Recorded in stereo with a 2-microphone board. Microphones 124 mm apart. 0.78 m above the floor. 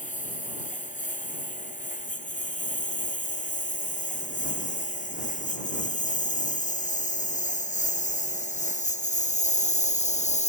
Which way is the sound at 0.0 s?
90° left.